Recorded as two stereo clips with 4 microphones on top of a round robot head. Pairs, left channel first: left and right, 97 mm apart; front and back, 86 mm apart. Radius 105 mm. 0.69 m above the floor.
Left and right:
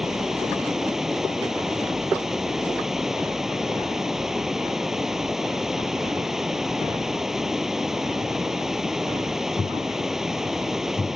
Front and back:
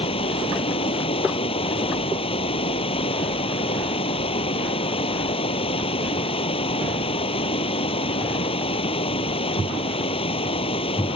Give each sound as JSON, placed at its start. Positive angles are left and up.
{"t": 0.0, "sound": "running water", "azimuth_deg": -5}